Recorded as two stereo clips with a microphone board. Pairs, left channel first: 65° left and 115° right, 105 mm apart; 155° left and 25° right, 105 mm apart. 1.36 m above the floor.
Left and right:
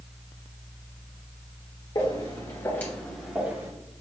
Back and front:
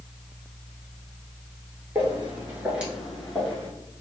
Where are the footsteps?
40° left, 2.0 m; by 3.7 s 140° right, 1.4 m.